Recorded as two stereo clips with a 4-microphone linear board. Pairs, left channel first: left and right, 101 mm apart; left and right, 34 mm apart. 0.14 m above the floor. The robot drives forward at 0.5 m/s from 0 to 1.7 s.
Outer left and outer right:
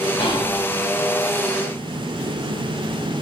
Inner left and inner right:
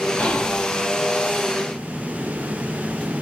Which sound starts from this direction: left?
Whispering, at 0.2 s.